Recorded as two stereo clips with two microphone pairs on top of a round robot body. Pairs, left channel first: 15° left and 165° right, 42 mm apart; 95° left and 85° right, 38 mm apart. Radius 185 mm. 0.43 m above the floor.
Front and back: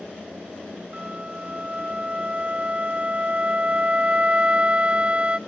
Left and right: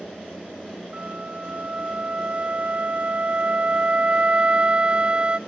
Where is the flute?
120° right, 0.6 m.